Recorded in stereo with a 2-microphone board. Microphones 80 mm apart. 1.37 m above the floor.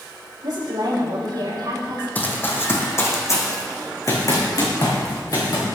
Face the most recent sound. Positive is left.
turn(degrees=55)  # may be behind; listen again after turning